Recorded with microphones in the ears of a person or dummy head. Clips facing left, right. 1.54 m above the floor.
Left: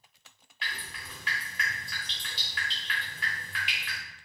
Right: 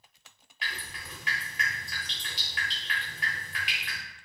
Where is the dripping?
10° right (ahead or behind), 1.2 m.